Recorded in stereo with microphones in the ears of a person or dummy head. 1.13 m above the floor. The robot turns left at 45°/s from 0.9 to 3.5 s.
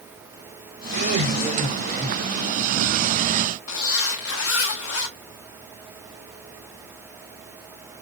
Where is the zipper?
70° left (ahead or behind), 0.8 m.